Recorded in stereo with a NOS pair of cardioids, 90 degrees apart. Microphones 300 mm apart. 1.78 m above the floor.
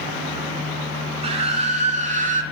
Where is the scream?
20° right, 5 m; by 2.4 s 30° right, 5 m.